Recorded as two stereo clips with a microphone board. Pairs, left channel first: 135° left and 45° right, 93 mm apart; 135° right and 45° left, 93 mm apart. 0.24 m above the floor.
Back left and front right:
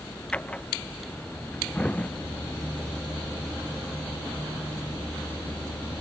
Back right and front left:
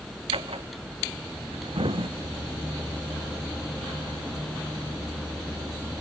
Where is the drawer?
60° left.